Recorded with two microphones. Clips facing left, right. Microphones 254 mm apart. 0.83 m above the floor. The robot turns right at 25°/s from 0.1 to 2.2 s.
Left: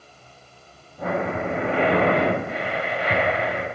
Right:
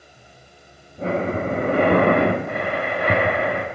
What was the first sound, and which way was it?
Breathing, 155° right.